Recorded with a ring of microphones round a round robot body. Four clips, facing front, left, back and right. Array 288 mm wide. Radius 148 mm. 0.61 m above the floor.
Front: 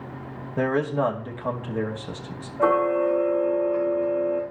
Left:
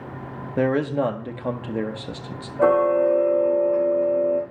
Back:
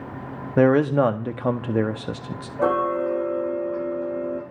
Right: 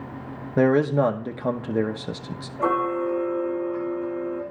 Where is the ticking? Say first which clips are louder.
Left 6 dB, front 1 dB; 130° left, 9.5 m.